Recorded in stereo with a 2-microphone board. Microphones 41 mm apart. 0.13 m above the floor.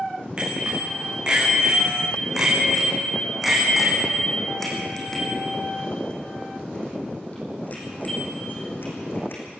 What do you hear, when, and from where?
0.4 s a bicycle bell: 25° right (ahead or behind), 8 m; by 9.4 s 60° left (ahead or behind), 5.5 m